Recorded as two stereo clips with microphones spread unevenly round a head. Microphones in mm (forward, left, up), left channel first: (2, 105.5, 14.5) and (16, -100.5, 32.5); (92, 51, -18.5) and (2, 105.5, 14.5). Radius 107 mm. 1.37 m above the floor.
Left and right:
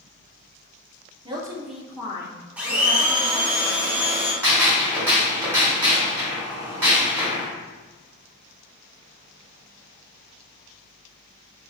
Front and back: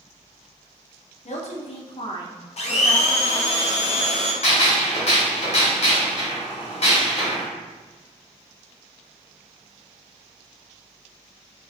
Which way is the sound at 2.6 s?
5° right.